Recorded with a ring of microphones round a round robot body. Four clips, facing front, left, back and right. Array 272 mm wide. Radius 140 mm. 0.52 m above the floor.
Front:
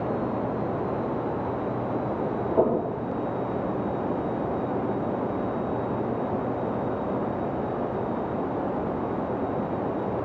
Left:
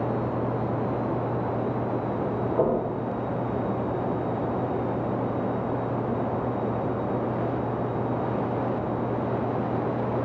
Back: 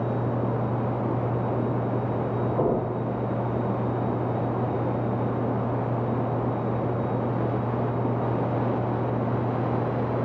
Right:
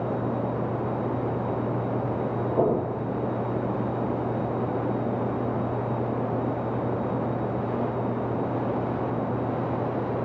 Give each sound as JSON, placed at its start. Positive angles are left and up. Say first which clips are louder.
{"t": 2.6, "sound": "knocking", "louder": "right 1 dB, front 3 dB", "azimuth_deg": -10, "distance_m": 3.0}